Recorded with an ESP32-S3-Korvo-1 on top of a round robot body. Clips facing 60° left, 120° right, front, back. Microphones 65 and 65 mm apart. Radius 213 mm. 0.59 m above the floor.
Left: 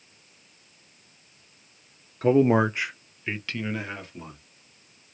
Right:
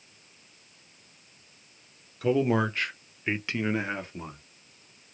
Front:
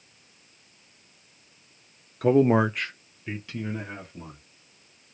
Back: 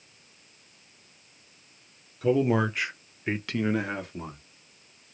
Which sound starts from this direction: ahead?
A man speaking, at 2.2 s.